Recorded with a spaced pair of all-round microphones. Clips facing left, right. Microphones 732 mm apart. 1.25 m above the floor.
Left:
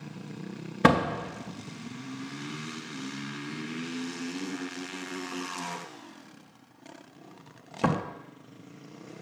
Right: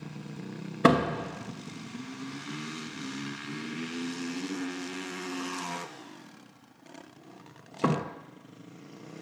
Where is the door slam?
30° left (ahead or behind), 0.6 m.